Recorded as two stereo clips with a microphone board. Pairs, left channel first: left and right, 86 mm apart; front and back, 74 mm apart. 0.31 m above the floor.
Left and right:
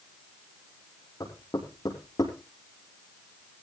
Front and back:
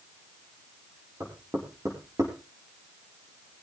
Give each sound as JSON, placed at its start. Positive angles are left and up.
{"t": 1.2, "sound": "knocking", "azimuth_deg": 135, "distance_m": 5.5}